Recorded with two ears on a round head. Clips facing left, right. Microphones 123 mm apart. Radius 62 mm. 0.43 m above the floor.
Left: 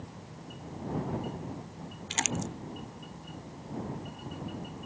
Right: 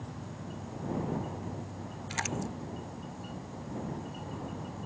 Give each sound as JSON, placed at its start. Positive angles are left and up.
{"t": 0.0, "sound": "an insect", "side_deg": -65}
{"t": 2.1, "sound": "crumpling", "side_deg": 30}